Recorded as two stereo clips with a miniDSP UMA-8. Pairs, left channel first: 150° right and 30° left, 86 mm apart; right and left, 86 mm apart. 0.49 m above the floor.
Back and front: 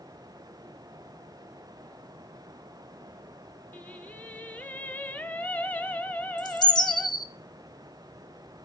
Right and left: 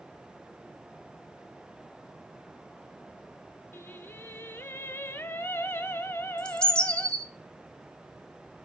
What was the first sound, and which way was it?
Singing, 110° right.